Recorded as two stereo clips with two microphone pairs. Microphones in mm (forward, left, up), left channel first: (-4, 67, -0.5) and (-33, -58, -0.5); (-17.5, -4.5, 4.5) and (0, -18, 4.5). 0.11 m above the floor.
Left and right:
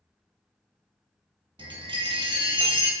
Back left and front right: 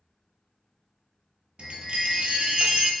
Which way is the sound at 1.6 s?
55° right.